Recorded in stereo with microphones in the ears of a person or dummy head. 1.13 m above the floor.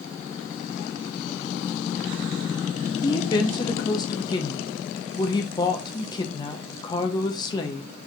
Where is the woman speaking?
25° left (ahead or behind), 0.7 m.